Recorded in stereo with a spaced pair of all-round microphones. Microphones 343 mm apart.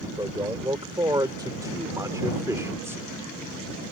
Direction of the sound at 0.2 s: 15° right (ahead or behind).